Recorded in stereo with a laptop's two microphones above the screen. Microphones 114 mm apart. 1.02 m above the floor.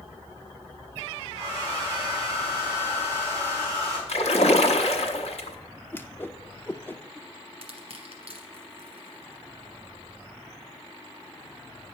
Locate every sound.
1.3 s a hair dryer: 50° left (ahead or behind), 5 m
4.1 s a splash: 70° left (ahead or behind), 0.9 m
5.9 s a whoosh: 20° left (ahead or behind), 0.5 m
7.6 s crushing: 55° right (ahead or behind), 1.5 m